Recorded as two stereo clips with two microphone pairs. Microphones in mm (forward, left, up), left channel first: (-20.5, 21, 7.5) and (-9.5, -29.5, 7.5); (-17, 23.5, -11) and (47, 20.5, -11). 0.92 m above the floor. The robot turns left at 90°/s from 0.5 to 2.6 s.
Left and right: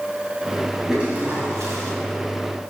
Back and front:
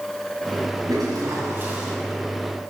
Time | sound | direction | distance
0.9 | a toilet flushing | 5° left | 2.5 m